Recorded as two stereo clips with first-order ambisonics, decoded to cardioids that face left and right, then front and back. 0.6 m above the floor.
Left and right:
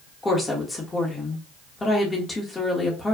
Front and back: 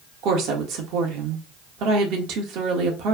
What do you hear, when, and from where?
0.2 s a woman speaking: 165° left, 1.4 m